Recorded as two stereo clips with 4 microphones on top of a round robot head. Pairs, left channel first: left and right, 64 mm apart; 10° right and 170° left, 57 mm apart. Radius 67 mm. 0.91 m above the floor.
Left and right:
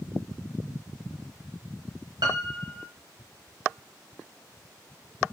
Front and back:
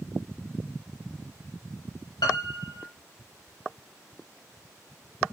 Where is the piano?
50° right, 1.1 m.